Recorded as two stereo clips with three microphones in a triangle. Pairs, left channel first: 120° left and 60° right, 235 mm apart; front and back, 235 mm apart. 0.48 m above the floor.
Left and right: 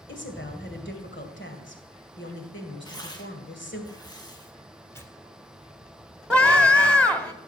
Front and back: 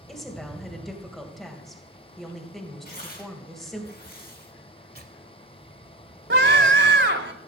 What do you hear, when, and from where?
0.1 s a woman speaking: 90° left, 2.5 m
2.9 s tearing paper: 45° left, 2.5 m
4.9 s tearing paper: 165° right, 1.8 m
6.3 s a scream: 155° right, 1.6 m